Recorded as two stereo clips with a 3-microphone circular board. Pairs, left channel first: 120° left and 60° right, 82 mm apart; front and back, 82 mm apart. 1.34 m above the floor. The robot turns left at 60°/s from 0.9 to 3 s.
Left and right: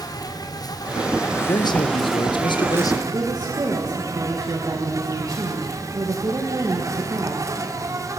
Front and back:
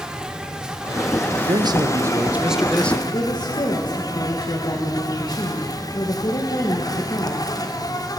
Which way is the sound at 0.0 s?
105° left.